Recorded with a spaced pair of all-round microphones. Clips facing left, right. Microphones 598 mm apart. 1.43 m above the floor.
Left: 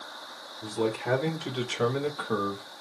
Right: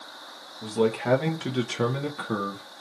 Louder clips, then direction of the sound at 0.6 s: Right 5 dB; 80° right.